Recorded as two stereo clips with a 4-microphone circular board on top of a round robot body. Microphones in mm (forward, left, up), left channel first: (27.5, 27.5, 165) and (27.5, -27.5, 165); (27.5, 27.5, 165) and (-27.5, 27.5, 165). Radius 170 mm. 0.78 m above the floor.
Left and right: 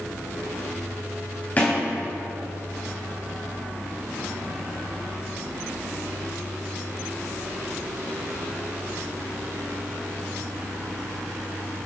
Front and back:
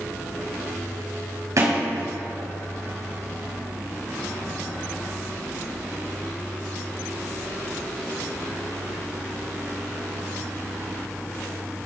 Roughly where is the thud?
Behind left.